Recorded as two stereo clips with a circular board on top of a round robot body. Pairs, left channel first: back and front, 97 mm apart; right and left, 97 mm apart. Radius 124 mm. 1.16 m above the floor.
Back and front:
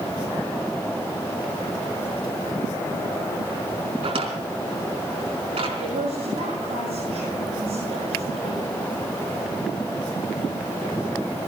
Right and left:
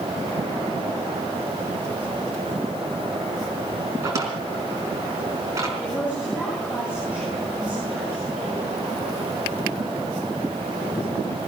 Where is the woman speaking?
15° left, 8.5 m.